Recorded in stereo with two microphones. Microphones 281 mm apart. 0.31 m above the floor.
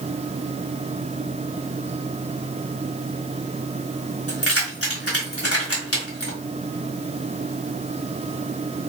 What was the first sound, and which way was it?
Keys jangling, 55° left (ahead or behind).